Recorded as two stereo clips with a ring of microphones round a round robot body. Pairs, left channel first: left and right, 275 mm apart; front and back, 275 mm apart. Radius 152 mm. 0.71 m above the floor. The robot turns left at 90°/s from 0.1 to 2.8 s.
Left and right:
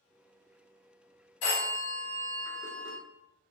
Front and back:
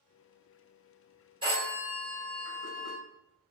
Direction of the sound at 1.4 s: 105° left.